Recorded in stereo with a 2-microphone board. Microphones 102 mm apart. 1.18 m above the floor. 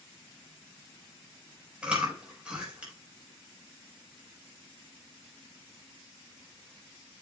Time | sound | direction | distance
1.8 | chewing | 10° right (ahead or behind) | 4.5 m